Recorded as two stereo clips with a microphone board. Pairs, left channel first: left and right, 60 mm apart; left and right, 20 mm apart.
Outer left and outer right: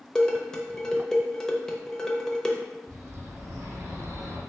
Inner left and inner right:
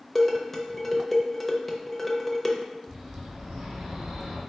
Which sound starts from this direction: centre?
Dishes clattering, at 0.1 s.